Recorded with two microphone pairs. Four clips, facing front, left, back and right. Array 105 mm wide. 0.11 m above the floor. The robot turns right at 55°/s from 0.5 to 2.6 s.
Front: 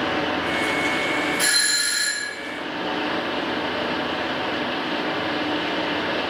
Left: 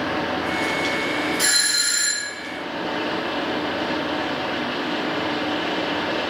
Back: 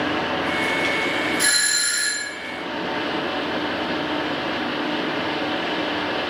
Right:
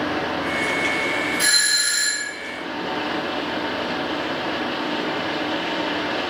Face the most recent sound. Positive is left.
turn(degrees=0)